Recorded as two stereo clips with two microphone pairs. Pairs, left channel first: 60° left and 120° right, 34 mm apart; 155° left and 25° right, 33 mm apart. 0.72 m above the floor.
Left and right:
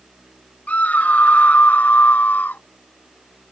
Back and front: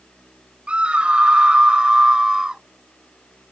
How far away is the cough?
I don't hear a cough.